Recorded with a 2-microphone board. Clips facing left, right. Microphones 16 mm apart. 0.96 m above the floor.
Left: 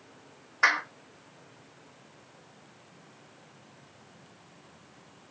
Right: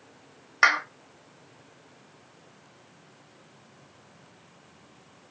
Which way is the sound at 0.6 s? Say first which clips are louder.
Right 3 dB; 75° right (ahead or behind).